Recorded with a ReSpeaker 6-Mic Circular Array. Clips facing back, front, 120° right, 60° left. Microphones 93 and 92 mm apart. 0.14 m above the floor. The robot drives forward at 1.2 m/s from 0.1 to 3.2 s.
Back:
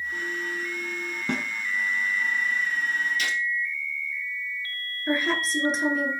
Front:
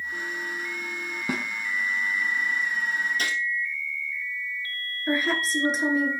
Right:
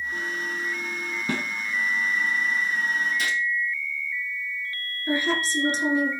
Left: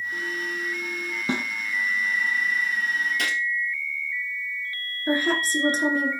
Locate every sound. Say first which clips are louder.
1.3 s a snare drum: back 1 dB, left 2 dB; 70° left, 1.0 m; by 1.4 s 100° left, 1.0 m
3.2 s a gunshot: even, even; 45° left, 2.5 m
5.1 s a woman speaking: even, left 2 dB; 90° left, 2.5 m